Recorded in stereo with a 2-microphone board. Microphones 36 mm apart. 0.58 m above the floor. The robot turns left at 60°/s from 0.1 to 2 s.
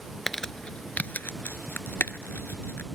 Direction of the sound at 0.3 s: 5° left (ahead or behind).